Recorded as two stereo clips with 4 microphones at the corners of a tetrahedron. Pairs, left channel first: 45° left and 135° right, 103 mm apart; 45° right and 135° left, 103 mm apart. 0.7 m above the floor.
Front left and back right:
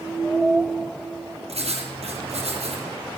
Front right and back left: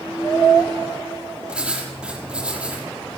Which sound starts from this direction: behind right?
Writing, at 1.5 s.